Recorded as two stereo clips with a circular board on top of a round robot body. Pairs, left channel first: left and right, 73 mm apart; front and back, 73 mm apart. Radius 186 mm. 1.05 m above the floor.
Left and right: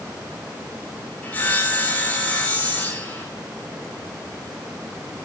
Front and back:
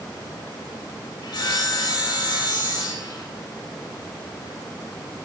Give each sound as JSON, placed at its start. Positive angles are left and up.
{"t": 1.2, "sound": "sawing", "azimuth_deg": 20, "distance_m": 4.5}